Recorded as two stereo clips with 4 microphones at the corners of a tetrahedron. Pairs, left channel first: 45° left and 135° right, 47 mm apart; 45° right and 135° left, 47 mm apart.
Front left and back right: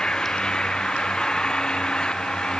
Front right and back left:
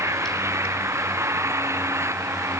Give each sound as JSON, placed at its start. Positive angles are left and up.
{"t": 0.0, "sound": "an engine running", "azimuth_deg": 115}